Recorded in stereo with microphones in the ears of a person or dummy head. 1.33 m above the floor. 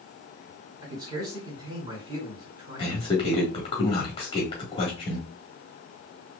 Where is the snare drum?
No snare drum in this recording.